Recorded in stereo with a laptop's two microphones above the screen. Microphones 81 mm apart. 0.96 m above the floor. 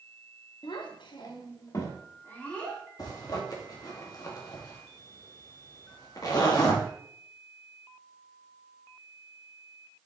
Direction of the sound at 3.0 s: 50° left (ahead or behind).